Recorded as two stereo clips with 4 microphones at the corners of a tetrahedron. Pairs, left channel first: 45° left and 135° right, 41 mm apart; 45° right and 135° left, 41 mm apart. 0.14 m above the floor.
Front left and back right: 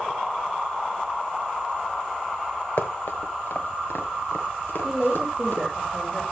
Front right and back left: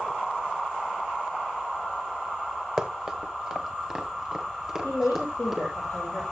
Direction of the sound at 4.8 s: 50° right.